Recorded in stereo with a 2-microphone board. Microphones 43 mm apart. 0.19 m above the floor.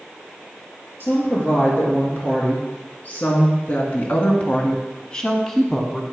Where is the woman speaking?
55° left (ahead or behind), 3.5 m; by 6.0 s centre (ahead or behind), 1.2 m.